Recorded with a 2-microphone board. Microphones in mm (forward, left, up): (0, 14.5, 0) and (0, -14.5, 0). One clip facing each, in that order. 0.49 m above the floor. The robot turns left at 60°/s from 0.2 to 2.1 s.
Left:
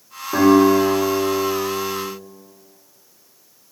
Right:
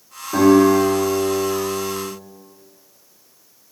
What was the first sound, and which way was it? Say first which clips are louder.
A guitar: even; 115° left.